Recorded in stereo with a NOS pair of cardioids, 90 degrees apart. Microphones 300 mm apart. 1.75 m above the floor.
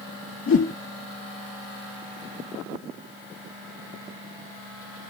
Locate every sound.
0.5 s a whoosh: 45° left, 3 m